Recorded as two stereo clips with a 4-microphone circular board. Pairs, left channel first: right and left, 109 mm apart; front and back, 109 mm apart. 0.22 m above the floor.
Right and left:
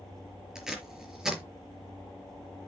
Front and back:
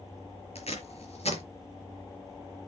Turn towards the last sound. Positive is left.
turn(degrees=5)